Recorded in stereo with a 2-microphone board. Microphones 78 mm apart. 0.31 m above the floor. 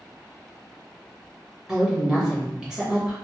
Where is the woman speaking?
10° right (ahead or behind), 1.1 m.